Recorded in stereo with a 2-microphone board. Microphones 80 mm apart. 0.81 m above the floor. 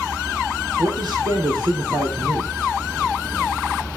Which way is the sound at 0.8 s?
65° right (ahead or behind).